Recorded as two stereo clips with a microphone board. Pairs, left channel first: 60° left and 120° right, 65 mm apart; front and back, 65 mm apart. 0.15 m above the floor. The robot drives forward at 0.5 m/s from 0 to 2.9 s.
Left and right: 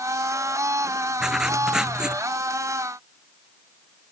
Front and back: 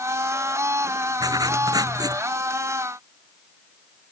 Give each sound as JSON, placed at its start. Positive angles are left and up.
{"t": 1.2, "sound": "writing", "azimuth_deg": 160}